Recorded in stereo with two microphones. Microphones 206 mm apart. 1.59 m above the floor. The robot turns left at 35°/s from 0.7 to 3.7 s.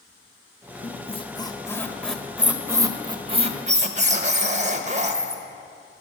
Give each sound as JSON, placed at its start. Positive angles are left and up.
{"t": 0.8, "sound": "a squeak", "azimuth_deg": 50, "distance_m": 0.9}